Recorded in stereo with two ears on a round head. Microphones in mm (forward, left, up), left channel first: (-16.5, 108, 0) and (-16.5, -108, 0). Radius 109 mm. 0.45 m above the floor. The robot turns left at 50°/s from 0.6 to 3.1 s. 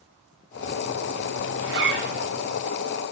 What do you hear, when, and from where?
1.6 s a zipper: 110° right, 5.5 m; by 2.3 s 145° right, 5.5 m